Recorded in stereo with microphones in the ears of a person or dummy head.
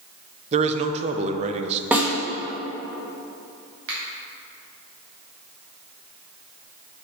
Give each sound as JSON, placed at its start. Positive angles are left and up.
{"t": 0.5, "sound": "a man speaking", "side_deg": -35, "distance_m": 0.6}
{"t": 1.9, "sound": "a snare drum", "side_deg": -5, "distance_m": 1.1}
{"t": 3.9, "sound": "a finger snap", "side_deg": -65, "distance_m": 1.7}